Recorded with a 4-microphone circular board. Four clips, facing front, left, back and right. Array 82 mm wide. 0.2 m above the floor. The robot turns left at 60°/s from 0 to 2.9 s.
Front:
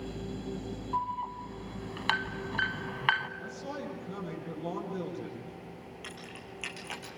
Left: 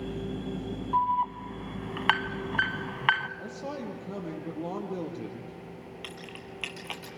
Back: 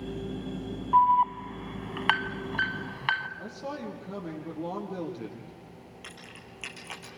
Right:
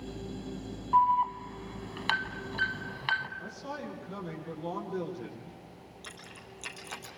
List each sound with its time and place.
0.9 s an alarm: 165° right, 0.9 m; by 3.3 s 80° left, 0.9 m
3.4 s a man speaking: 125° left, 7 m
6.0 s keys jangling: 90° left, 3.5 m